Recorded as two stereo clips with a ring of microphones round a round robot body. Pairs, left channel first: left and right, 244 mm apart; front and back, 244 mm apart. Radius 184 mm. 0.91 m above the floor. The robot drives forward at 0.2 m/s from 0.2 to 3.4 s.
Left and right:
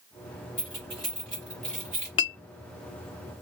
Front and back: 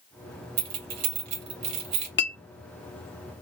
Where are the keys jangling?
155° left, 0.9 m; by 2.1 s 160° left, 1.1 m.